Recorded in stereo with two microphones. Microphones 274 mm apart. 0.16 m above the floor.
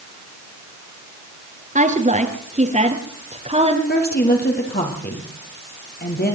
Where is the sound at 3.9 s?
35° left (ahead or behind), 4.5 m.